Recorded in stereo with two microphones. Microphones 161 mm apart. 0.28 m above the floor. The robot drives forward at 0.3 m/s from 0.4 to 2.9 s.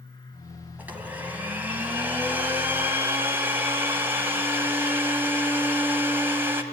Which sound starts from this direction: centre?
A blender, at 0.8 s.